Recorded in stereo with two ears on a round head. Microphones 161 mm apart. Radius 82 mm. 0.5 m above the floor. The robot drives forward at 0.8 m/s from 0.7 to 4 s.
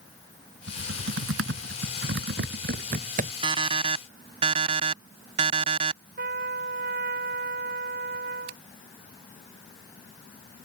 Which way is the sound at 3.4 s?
30° right (ahead or behind).